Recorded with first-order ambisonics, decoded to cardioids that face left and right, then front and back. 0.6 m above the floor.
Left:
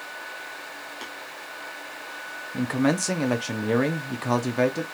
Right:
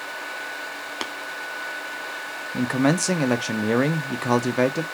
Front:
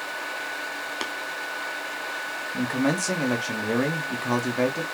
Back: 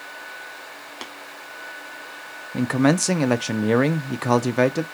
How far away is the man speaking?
About 0.6 m.